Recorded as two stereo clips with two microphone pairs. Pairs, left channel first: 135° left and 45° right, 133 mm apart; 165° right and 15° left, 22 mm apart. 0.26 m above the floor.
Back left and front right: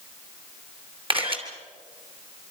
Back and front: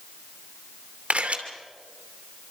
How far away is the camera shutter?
About 2.5 m.